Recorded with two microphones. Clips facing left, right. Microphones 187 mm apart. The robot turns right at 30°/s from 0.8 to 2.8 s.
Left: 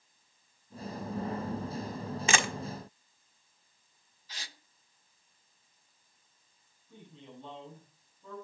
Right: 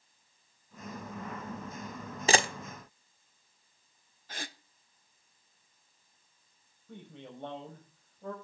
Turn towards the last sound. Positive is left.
turn(degrees=-75)  # may be behind; listen again after turning